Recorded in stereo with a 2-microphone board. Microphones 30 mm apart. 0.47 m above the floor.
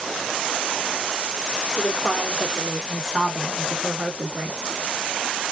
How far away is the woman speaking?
About 1.0 m.